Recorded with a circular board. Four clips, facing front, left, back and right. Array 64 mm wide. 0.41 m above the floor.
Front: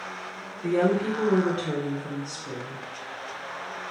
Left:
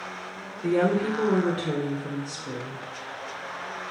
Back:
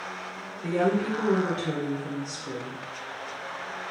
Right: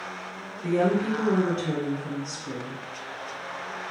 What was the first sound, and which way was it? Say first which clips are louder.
A woman speaking: left 1 dB, front 2 dB; 85° left.